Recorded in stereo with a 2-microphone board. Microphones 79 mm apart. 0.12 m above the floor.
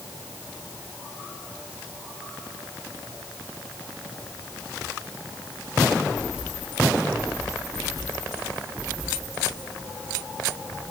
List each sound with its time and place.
Only background noise.